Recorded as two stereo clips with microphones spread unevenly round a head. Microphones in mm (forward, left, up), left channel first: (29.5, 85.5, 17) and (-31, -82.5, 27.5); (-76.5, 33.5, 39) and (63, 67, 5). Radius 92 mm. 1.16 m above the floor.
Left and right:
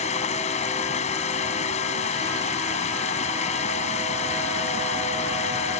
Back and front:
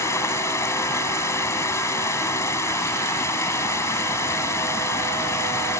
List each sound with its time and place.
0.0 s running water: 125° left